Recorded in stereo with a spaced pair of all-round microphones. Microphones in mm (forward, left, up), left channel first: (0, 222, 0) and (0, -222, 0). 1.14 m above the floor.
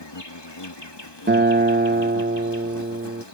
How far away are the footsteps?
No footsteps in this recording.